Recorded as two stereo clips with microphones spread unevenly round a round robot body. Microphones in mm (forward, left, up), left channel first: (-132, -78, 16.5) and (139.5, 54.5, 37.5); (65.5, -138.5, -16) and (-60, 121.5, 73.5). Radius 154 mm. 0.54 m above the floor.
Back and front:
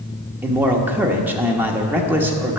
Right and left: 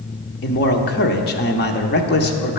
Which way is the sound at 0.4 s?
60° right.